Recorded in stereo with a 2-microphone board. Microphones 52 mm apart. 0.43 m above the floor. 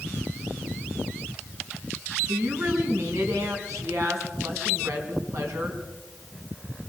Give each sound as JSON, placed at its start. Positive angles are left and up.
{"t": 2.3, "sound": "a woman speaking", "side_deg": -70, "distance_m": 4.5}